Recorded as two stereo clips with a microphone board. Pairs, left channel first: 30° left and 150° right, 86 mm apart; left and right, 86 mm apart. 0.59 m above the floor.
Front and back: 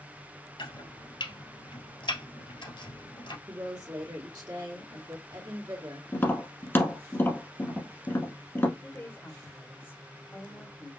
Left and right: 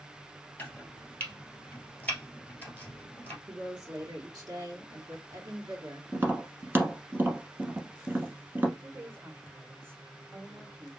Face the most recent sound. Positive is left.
turn(degrees=-30)